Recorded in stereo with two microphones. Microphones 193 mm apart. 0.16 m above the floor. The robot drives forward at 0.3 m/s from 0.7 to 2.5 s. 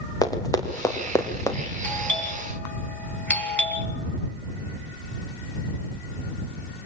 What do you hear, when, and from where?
0.2 s running footsteps: 20° left (ahead or behind), 4.5 m; by 1.6 s 15° left (ahead or behind), 3.5 m
1.8 s a doorbell: 10° left (ahead or behind), 4.5 m